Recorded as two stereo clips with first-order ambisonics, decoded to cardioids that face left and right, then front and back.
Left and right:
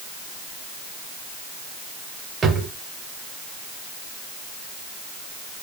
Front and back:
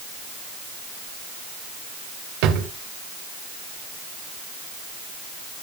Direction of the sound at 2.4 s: 160° right.